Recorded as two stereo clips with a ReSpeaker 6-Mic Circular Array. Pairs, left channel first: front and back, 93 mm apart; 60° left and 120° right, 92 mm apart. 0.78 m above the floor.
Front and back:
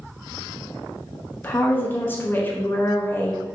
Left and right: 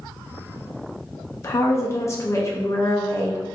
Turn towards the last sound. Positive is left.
turn(degrees=45)